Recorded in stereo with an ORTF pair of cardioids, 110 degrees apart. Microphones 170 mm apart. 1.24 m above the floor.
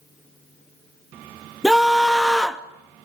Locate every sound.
1.6 s a scream: straight ahead, 2.5 m